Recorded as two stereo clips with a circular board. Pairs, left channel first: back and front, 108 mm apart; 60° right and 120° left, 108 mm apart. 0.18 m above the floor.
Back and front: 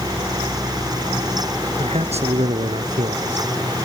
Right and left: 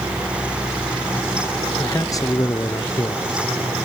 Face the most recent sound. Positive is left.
turn(degrees=-5)